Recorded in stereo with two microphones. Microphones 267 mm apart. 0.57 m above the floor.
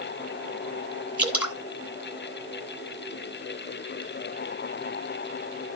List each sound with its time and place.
1.2 s dripping: 5° right (ahead or behind), 2 m